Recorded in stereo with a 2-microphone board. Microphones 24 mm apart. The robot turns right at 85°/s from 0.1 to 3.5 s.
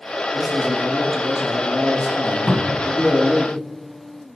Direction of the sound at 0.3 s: 55° right.